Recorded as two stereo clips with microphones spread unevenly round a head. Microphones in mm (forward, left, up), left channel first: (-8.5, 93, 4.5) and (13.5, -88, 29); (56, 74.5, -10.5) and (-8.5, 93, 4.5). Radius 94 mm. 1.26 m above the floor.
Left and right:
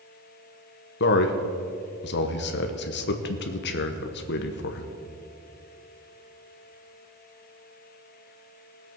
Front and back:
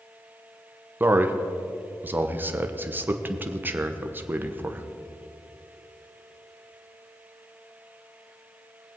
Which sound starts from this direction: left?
A man speaking, at 1.0 s.